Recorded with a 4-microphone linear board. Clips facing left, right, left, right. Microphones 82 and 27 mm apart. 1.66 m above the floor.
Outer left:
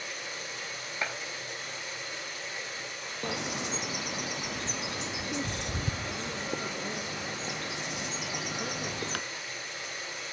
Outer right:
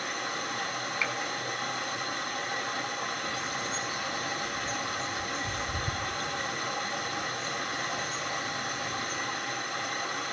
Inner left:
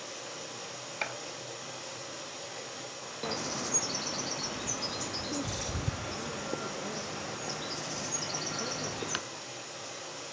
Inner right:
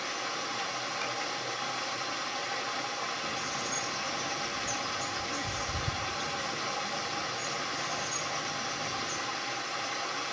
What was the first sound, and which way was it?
Running water, 55° right (ahead or behind).